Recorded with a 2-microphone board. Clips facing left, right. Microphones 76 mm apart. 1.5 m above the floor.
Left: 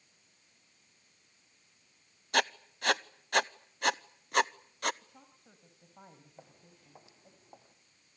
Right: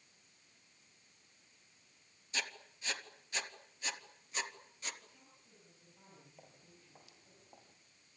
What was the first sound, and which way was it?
Writing, 70° left (ahead or behind).